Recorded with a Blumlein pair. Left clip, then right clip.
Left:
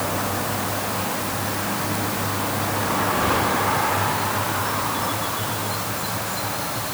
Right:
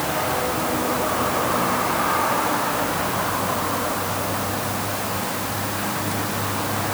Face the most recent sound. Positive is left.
No sound to turn to.